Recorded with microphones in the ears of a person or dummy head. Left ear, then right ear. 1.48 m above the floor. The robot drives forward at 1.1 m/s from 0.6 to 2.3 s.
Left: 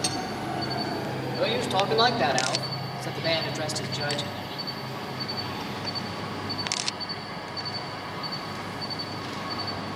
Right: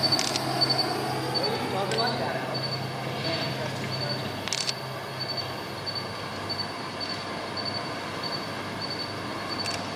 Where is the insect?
45° right (ahead or behind), 1.3 m; by 10.0 s 25° right (ahead or behind), 2.5 m.